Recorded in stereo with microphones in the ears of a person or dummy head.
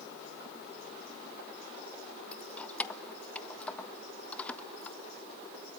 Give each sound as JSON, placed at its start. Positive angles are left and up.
{"t": 2.3, "sound": "keys jangling", "side_deg": 10, "distance_m": 1.3}